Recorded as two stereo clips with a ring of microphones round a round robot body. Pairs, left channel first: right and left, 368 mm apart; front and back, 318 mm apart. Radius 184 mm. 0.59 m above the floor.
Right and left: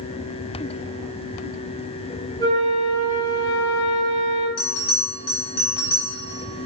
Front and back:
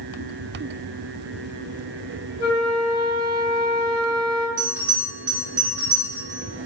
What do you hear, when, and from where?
2.4 s a flute: 170° right, 2.5 m
4.6 s a bell: 125° right, 3 m